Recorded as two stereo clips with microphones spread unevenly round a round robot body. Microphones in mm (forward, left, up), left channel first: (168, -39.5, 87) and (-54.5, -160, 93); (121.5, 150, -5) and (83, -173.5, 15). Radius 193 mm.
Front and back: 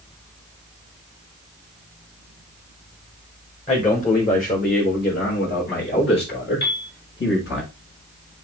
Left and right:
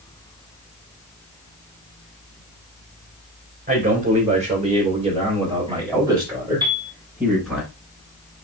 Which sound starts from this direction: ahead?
A piano, at 6.6 s.